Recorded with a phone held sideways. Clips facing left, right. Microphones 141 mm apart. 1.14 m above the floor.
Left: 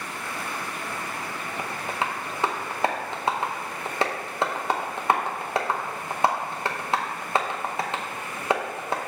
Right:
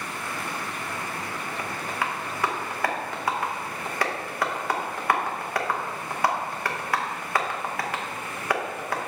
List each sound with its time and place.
1.6 s tapping: 25° left (ahead or behind), 0.7 m